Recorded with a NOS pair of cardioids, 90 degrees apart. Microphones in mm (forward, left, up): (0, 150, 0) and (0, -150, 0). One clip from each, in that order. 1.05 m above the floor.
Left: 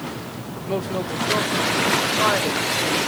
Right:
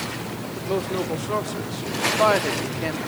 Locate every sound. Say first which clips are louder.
0.6 s a woman speaking: even; straight ahead, 3 m; by 3.0 s 45° right, 2 m